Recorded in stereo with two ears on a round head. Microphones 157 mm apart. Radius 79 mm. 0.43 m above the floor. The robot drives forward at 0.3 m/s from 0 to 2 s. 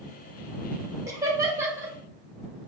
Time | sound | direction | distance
1.1 | laughter | 20° right (ahead or behind) | 1.1 m